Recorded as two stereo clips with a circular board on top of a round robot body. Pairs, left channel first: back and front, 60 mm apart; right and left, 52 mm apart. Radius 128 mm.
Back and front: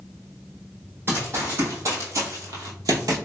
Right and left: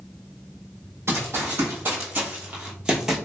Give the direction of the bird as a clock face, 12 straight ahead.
I don't hear a bird.